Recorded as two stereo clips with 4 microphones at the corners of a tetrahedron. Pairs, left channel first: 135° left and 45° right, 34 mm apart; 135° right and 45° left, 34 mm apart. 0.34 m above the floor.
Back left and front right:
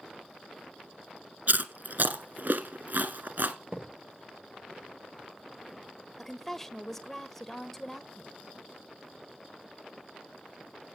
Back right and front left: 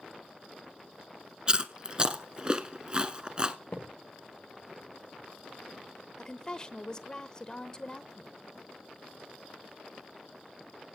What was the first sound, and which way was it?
Chewing, 20° right.